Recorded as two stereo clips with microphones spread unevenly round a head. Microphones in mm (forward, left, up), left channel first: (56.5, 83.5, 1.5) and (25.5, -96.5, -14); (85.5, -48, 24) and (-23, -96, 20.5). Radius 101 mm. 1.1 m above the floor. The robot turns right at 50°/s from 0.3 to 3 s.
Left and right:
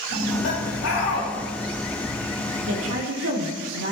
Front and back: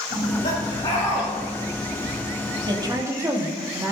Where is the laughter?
65° left, 5.5 m; by 1.3 s 115° left, 5.5 m.